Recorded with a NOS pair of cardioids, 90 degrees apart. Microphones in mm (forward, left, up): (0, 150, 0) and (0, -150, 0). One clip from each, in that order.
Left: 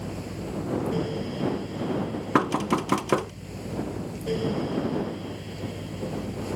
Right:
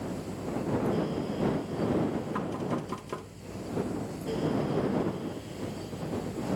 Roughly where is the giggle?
No giggle in this recording.